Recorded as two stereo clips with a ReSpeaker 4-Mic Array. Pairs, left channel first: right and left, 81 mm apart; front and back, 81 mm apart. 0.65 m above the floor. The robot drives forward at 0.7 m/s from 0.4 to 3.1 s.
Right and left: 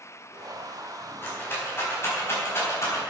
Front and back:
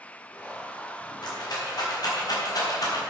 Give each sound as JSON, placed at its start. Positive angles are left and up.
{"t": 1.2, "sound": "a rattle", "azimuth_deg": -30, "distance_m": 4.5}